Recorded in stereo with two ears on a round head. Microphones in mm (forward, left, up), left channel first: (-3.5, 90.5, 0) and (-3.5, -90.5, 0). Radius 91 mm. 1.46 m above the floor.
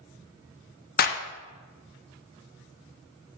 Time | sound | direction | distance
1.0 | a clap | 45° left (ahead or behind) | 0.8 m